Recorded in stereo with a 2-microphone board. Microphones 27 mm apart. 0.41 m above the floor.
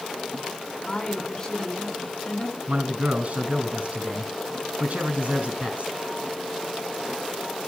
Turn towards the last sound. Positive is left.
turn(degrees=-55)  # may be behind; listen again after turning